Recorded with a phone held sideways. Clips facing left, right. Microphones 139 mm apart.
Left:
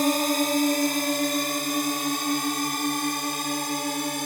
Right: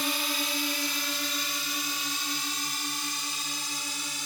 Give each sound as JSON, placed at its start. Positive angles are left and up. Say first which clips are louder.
{"t": 0.0, "sound": "a drone", "louder": "left 11 dB", "side_deg": 45}